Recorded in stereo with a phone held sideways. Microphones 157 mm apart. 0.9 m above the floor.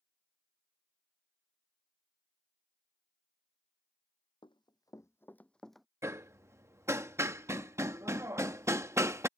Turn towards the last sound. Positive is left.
turn(degrees=-15)  # may be behind; listen again after turning